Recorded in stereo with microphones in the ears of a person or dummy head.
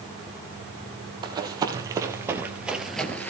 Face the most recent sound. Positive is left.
turn(degrees=5)  # may be behind; listen again after turning